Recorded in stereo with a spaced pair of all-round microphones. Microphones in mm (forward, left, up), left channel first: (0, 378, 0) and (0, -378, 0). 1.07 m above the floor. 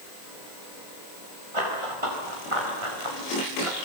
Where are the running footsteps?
40° right (ahead or behind), 9 m; by 3.8 s 45° right (ahead or behind), 7 m.